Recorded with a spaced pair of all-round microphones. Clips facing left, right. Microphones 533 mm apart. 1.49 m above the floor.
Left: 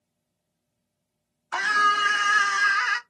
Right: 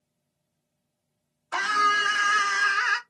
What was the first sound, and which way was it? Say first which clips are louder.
A scream: even; 15° left (ahead or behind).